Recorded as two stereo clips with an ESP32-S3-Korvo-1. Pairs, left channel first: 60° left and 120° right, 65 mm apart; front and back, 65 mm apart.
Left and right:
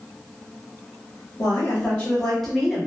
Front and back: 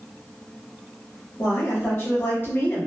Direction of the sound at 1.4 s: 45° left.